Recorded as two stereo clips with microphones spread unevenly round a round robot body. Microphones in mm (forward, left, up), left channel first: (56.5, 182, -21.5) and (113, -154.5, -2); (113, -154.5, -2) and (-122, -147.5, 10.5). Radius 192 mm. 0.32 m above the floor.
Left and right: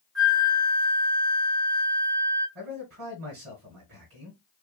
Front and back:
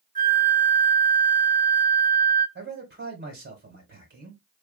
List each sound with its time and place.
0.1 s a flute: straight behind, 1.6 m
2.5 s a man speaking: 145° right, 1.7 m